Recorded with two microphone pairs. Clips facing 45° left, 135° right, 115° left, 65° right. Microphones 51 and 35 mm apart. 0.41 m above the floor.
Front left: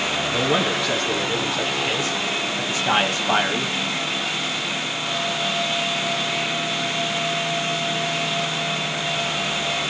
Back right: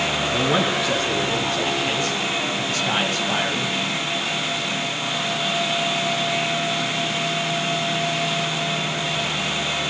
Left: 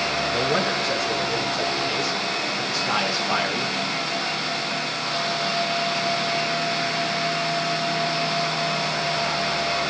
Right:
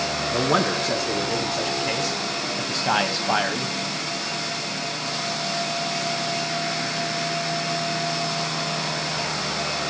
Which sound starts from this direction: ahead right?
A man speaking, at 0.3 s.